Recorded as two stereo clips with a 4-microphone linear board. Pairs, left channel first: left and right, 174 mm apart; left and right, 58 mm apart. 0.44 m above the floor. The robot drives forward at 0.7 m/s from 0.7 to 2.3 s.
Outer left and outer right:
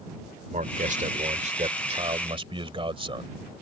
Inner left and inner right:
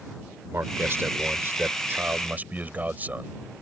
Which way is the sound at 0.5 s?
45° right (ahead or behind).